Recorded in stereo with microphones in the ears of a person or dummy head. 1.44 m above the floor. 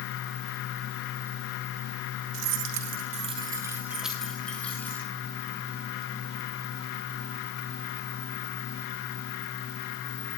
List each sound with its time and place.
2.3 s keys jangling: 75° right (ahead or behind), 1.7 m; by 5.0 s 15° left (ahead or behind), 4 m